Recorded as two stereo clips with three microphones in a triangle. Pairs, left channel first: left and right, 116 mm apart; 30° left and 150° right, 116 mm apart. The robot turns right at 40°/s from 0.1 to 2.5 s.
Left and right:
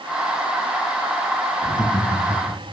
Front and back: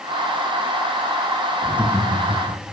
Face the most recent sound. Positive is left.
turn(degrees=145)